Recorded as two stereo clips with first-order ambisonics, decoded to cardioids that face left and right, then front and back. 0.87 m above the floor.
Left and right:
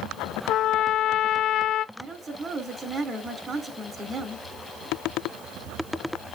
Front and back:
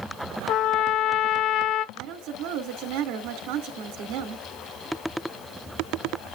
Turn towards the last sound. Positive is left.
turn(degrees=-160)